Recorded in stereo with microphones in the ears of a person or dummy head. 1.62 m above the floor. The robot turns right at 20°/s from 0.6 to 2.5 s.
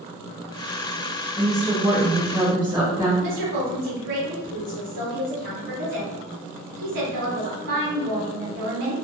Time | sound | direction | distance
1.4 | a woman speaking | 5° left (ahead or behind) | 1.3 m
3.2 | a woman speaking | 60° right (ahead or behind) | 0.9 m